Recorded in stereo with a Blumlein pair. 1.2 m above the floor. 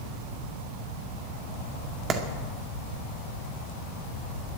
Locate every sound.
2.1 s a clap: 25° right, 2 m